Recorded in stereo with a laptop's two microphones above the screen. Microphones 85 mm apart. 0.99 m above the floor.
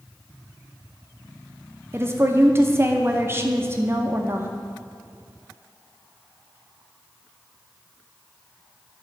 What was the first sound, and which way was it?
A woman speaking, 30° right (ahead or behind).